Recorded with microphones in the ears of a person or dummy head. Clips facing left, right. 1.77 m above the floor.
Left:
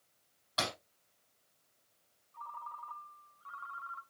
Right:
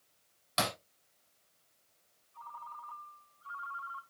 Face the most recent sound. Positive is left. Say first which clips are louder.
# left 1 dB
turn(degrees=55)  # may be behind; listen again after turning